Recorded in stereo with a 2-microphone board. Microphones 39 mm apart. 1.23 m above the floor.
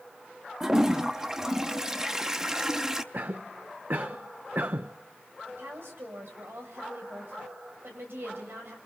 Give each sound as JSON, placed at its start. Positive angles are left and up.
{"t": 0.6, "sound": "a toilet flushing", "side_deg": -15, "distance_m": 0.8}
{"t": 3.1, "sound": "a cough", "side_deg": -55, "distance_m": 0.5}
{"t": 5.5, "sound": "a woman speaking", "side_deg": -80, "distance_m": 7.5}